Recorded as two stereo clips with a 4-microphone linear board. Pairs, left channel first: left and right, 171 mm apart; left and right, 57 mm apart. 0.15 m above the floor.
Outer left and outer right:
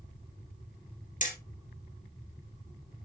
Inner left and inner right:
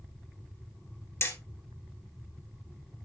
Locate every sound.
1.2 s hammering: 50° left (ahead or behind), 2.5 m